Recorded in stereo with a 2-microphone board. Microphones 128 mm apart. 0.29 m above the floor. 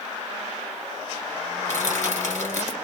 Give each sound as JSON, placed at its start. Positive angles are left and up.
{"t": 1.6, "sound": "crushing", "side_deg": 20, "distance_m": 2.0}